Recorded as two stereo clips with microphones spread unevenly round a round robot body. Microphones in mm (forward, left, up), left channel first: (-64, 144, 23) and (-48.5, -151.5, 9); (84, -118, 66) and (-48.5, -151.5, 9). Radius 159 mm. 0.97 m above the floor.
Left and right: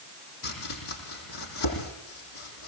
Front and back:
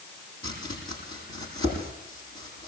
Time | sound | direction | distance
0.4 | chopping | 60° left | 8.5 m